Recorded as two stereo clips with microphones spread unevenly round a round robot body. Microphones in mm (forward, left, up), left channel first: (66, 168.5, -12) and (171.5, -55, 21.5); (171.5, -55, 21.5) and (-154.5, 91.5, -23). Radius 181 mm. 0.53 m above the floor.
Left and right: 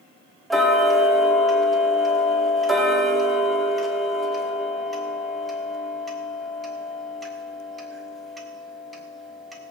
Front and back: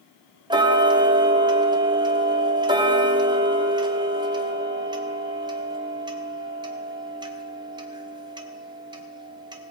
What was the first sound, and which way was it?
Ticking, 175° right.